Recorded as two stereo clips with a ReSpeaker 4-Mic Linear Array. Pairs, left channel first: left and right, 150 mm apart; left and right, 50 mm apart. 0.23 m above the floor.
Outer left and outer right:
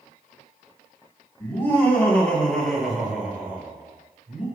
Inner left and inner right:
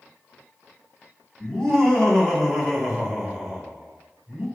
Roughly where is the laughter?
Centre.